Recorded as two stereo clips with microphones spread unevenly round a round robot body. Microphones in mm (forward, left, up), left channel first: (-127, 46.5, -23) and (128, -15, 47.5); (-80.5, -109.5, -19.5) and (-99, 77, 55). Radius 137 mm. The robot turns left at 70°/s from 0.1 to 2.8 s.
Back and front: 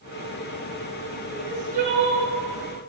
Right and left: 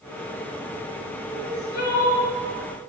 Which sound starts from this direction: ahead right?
Crying, at 1.3 s.